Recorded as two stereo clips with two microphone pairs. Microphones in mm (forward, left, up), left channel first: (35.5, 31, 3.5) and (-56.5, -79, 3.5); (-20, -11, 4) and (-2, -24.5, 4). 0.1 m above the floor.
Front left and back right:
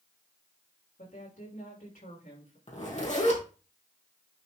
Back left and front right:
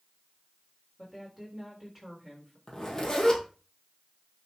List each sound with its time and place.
1.0 s a woman speaking: 45° left, 6 m
2.7 s a zipper: 80° left, 3.5 m